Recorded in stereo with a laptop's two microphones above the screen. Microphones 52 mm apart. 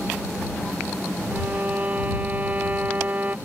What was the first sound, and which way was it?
A violin, 30° right (ahead or behind).